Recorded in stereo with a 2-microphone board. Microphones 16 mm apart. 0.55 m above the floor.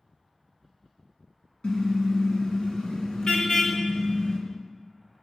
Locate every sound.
1.6 s a car horn: 60° left (ahead or behind), 3 m; by 4.4 s 70° left (ahead or behind), 4.5 m